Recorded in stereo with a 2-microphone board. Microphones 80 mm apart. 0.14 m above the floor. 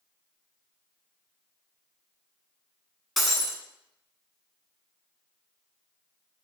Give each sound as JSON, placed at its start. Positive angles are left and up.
{"t": 3.2, "sound": "breaking glass", "side_deg": 0, "distance_m": 0.7}